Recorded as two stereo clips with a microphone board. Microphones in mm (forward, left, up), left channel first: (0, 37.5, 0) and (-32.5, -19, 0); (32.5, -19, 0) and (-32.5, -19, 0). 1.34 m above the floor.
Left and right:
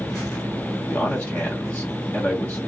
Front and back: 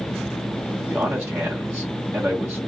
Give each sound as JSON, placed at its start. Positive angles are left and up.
{"t": 0.9, "sound": "a man speaking", "azimuth_deg": 115, "distance_m": 0.8}